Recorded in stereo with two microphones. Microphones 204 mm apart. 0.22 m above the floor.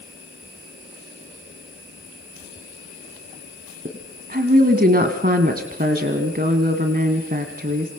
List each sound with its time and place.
3.9 s a woman speaking: 50° right (ahead or behind), 1.7 m